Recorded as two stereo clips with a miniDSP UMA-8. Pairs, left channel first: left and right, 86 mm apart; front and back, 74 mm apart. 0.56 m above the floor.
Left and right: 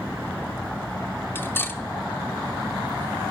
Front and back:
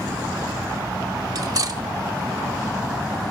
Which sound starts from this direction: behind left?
Cutlery clinking, at 1.4 s.